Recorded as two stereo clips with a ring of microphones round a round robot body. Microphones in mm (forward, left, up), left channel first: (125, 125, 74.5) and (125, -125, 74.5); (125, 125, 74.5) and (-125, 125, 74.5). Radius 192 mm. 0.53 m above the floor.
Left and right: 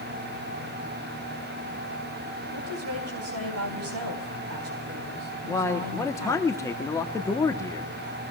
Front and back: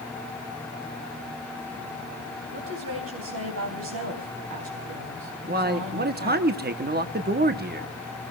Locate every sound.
2.5 s a woman speaking: 130° right, 4 m
5.5 s a man speaking: 165° left, 1.5 m